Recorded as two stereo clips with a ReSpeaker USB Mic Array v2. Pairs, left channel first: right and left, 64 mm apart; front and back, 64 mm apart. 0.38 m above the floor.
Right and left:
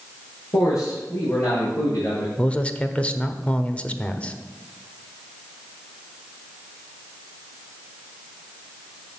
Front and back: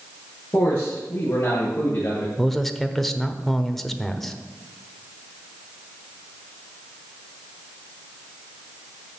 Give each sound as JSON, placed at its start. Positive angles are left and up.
{"t": 0.5, "sound": "a man speaking", "azimuth_deg": -60, "distance_m": 6.5}
{"t": 2.4, "sound": "a man speaking", "azimuth_deg": -80, "distance_m": 0.9}